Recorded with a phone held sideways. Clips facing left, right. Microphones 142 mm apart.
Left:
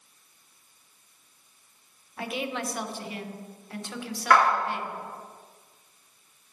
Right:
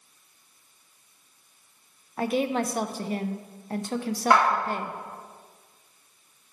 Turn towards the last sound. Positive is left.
turn(degrees=-25)  # may be behind; listen again after turning